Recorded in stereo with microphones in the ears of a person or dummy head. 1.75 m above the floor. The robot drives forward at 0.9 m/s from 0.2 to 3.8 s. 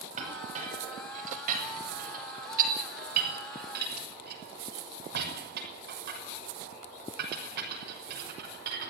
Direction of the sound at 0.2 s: 40° right (ahead or behind).